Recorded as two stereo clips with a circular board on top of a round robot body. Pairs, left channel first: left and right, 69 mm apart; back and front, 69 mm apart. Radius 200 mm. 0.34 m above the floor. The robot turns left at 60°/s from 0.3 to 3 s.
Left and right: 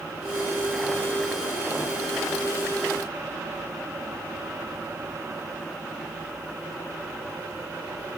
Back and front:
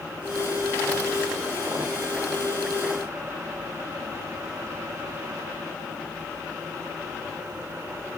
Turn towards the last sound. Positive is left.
No sound to turn to.